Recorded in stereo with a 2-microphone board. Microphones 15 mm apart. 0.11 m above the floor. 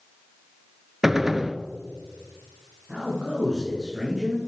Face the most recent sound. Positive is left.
turn(degrees=-60)  # may be behind; listen again after turning